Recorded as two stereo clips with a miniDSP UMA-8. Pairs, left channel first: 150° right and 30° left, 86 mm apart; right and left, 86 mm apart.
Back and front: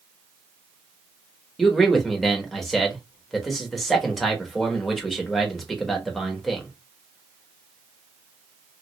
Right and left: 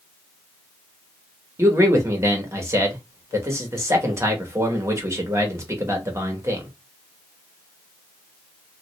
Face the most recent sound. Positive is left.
turn(degrees=120)